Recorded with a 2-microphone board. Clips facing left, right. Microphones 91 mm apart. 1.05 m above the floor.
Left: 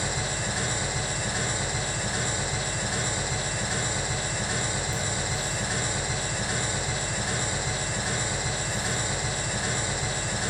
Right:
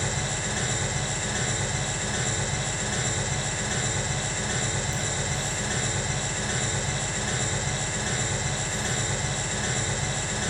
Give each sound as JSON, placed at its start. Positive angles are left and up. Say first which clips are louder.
{"t": 0.0, "sound": "an engine running", "louder": "even", "side_deg": 10, "distance_m": 2.5}